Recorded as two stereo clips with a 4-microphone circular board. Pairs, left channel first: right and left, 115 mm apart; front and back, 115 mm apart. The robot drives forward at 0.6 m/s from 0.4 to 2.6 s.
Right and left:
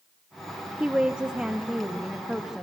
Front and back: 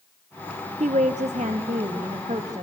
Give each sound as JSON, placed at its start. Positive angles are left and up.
{"t": 0.8, "sound": "a woman speaking", "azimuth_deg": 170, "distance_m": 0.7}